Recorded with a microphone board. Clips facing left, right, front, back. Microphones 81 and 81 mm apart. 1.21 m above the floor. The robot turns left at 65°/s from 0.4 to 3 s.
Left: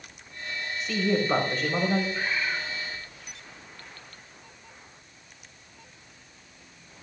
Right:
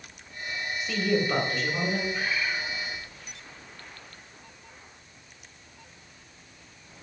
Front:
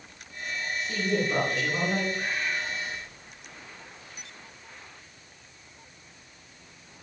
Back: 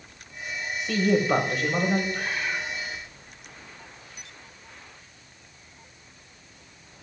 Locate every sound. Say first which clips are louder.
0.8 s a woman speaking: even, back 6 dB; 170° right, 6.5 m; by 2.0 s 110° left, 6.5 m
2.1 s a bird: even, back 1 dB; 175° left, 4.5 m; by 2.7 s 140° left, 4.5 m